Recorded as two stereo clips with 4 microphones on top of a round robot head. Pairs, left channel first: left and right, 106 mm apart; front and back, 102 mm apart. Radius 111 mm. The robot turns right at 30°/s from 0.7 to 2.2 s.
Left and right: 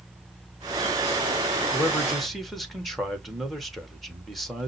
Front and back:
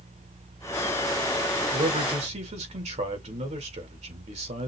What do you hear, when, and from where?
1.7 s a man speaking: 165° left, 1.9 m; by 4.7 s straight behind, 1.9 m